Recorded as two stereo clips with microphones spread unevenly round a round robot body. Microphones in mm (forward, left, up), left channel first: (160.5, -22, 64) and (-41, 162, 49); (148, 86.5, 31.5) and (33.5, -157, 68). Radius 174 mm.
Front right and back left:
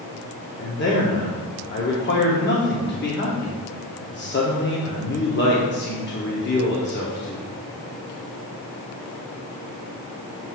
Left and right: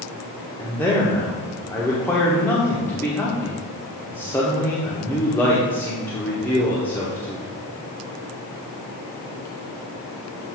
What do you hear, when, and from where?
0.6 s a man speaking: 10° right, 1.2 m